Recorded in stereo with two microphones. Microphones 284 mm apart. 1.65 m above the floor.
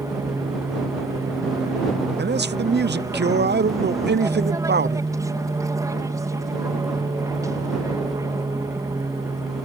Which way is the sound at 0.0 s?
10° right (ahead or behind).